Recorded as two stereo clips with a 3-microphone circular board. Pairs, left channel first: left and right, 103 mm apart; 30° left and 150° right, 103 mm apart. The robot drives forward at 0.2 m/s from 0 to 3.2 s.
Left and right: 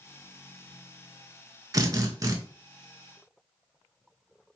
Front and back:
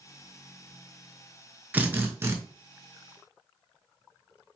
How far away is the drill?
About 0.6 m.